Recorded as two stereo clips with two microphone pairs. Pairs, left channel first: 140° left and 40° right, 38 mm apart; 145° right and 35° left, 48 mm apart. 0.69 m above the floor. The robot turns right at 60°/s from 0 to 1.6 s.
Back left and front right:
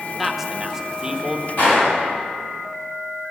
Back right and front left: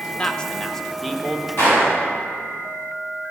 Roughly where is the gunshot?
Behind.